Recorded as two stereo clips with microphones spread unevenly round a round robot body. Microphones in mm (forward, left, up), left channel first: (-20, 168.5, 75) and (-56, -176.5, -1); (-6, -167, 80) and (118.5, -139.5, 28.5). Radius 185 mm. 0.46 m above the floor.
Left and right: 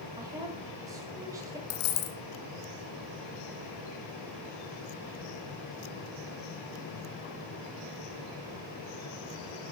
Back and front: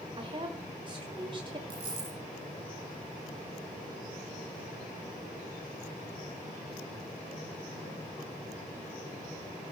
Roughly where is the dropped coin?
Left.